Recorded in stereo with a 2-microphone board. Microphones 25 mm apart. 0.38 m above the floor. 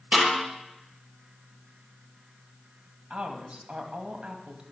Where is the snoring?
I don't hear snoring.